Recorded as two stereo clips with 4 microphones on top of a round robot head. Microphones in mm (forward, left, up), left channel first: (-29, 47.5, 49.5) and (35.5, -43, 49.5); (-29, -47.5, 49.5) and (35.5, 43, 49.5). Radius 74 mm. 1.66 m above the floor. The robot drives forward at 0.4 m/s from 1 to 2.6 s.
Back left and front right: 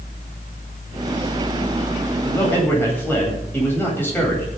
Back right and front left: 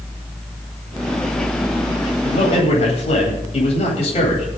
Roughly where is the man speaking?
Behind.